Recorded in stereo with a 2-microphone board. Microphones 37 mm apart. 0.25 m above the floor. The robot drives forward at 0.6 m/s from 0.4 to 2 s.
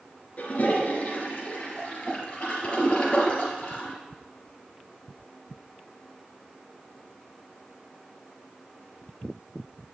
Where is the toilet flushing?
45° left (ahead or behind), 2.5 m; by 3.9 s 35° left (ahead or behind), 3.5 m.